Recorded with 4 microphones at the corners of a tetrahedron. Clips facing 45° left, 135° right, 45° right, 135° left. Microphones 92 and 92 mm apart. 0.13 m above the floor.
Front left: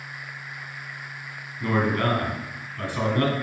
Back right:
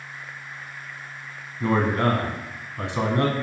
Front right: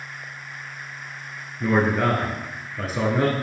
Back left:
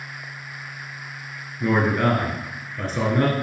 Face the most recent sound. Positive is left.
turn(degrees=-125)